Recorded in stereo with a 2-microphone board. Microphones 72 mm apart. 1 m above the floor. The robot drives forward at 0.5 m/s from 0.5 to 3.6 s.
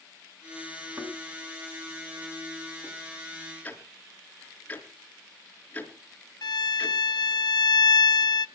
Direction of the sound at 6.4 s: 65° left (ahead or behind).